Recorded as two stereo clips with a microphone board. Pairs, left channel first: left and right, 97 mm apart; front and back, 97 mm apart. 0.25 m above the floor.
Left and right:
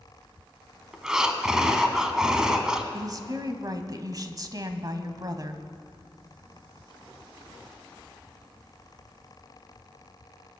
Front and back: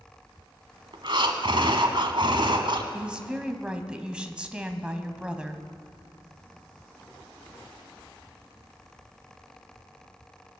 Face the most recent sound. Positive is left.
turn(degrees=-105)